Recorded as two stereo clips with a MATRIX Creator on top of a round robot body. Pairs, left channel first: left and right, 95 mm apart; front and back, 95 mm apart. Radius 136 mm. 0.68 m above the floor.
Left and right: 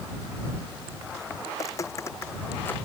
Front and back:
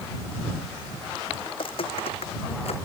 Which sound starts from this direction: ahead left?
Footsteps, at 1.5 s.